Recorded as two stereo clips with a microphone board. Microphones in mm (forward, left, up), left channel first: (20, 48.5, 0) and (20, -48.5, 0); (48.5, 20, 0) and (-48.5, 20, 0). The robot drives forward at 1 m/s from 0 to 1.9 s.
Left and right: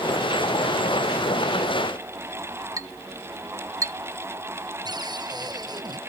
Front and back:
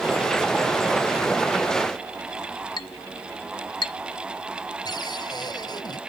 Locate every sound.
2.8 s a clink: 35° right
4.8 s a cupboard door: 45° right